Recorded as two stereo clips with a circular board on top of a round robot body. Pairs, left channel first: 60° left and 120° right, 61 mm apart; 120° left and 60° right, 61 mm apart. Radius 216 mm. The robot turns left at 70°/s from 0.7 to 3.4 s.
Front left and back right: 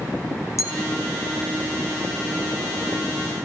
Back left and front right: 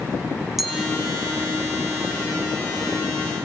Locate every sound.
0.6 s a clink: 25° left, 1.4 m; by 0.8 s 15° left, 1.4 m